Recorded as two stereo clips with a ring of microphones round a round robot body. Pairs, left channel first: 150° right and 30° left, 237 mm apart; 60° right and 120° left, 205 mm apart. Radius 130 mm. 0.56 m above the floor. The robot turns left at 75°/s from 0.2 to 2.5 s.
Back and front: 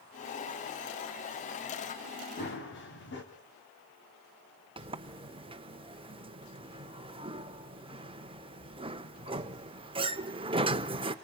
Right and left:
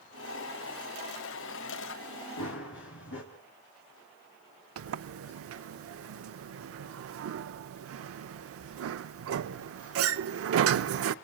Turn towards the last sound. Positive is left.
turn(degrees=100)